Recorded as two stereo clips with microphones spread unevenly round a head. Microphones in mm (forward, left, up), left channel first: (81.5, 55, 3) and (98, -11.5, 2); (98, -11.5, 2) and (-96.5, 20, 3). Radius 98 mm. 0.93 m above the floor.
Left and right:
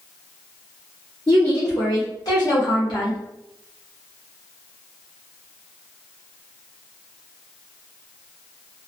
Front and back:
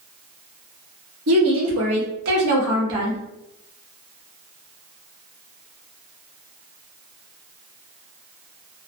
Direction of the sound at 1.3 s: 175° right.